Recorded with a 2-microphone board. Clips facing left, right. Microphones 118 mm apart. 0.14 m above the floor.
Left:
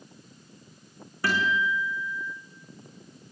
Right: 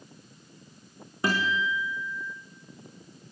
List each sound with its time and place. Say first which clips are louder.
1.2 s a guitar: left 1 dB; 20° right (ahead or behind), 5.5 m